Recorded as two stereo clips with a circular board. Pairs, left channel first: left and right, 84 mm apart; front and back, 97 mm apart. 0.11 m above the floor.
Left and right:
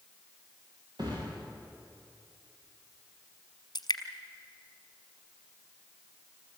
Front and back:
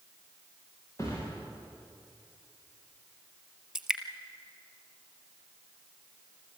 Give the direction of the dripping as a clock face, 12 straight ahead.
9 o'clock.